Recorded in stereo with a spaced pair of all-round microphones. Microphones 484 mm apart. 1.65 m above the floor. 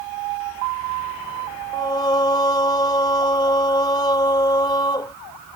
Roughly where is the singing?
Centre.